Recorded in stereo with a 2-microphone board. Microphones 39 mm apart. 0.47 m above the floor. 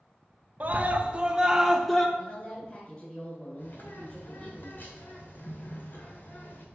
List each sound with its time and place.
0.6 s a scream: 40° right (ahead or behind), 1.0 m; by 2.1 s 10° left (ahead or behind), 0.7 m
2.2 s a woman speaking: 30° left (ahead or behind), 2.5 m
3.6 s a bird: 55° left (ahead or behind), 1.9 m